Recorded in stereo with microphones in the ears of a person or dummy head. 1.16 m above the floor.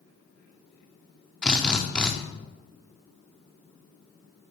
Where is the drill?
10° left (ahead or behind), 0.5 m.